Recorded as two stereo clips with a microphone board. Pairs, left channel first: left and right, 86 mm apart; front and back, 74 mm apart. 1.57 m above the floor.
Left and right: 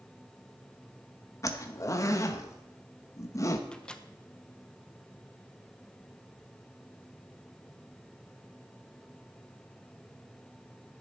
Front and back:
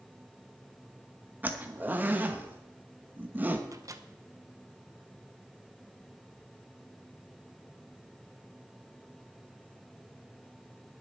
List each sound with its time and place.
1.4 s a zipper: 125° left, 1.0 m
3.7 s a microwave: 165° left, 0.8 m